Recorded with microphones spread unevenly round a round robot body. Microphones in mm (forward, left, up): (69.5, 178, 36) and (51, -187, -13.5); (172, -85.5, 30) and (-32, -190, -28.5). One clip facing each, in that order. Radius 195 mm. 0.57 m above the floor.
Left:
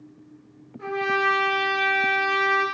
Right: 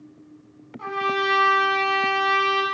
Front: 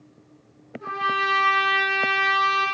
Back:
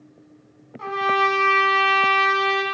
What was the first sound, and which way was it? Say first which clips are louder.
A trumpet: left 1 dB, back 9 dB; 165° right.